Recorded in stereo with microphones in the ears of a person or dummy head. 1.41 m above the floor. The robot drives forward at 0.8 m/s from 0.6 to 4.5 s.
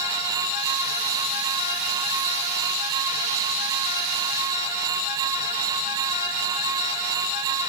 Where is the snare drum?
I don't hear a snare drum.